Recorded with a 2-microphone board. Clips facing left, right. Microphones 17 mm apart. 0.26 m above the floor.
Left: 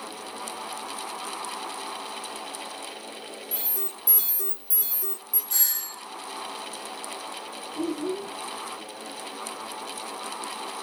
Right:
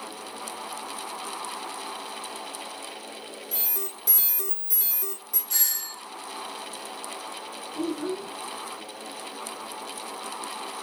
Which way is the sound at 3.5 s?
45° right (ahead or behind).